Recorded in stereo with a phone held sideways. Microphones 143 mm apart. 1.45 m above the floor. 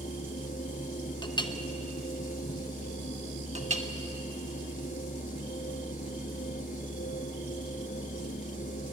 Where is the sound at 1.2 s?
30° left (ahead or behind), 1.0 m.